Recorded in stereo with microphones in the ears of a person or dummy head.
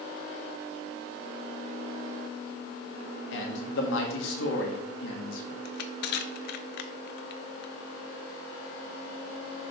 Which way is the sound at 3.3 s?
85° left.